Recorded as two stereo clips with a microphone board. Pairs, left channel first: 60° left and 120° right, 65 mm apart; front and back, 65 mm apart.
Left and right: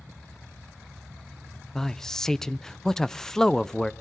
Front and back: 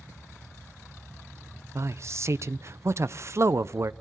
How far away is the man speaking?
About 0.5 m.